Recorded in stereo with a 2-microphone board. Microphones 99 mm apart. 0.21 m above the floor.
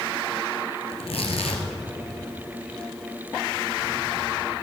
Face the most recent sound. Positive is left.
turn(degrees=75)  # may be behind; listen again after turning